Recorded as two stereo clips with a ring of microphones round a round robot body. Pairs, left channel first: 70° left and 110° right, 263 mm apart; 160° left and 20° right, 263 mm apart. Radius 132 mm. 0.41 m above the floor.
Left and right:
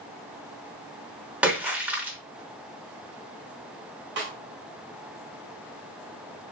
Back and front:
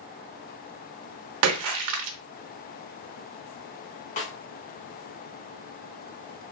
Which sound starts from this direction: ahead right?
A splash, at 1.4 s.